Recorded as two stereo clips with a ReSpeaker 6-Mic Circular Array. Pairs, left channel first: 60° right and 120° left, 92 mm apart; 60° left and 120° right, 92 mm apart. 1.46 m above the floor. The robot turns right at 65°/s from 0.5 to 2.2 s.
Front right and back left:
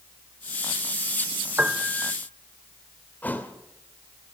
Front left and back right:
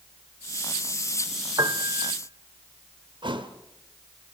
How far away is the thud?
About 2.0 m.